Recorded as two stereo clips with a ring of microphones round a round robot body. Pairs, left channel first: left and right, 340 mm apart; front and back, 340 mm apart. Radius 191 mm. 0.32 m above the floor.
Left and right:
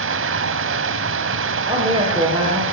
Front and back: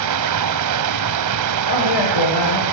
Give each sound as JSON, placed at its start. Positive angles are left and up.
{"t": 0.0, "sound": "running water", "azimuth_deg": -145, "distance_m": 1.2}
{"t": 1.7, "sound": "a woman speaking", "azimuth_deg": -15, "distance_m": 9.0}